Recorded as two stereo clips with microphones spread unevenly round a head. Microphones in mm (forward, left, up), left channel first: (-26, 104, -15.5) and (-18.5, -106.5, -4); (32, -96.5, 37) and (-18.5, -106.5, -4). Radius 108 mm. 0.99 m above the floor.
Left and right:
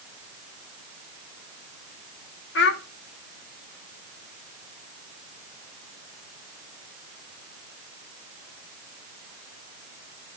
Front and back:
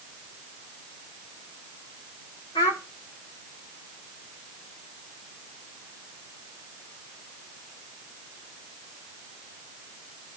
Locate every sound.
2.5 s a child speaking: 50° left, 1.6 m